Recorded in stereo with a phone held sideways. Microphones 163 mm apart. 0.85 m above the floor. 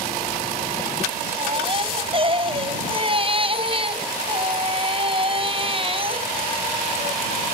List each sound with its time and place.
1.4 s a baby crying: 35° right (ahead or behind)